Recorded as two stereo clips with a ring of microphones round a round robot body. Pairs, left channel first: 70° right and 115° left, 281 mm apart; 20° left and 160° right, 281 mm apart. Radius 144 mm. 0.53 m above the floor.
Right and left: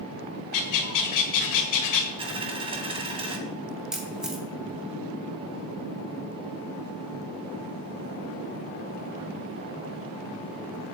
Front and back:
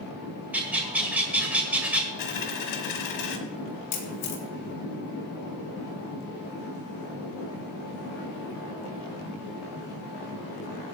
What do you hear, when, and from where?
0.5 s a bird: 75° right, 1.9 m
2.2 s a dropped coin: 40° left, 2 m
3.9 s a camera shutter: 25° left, 2.5 m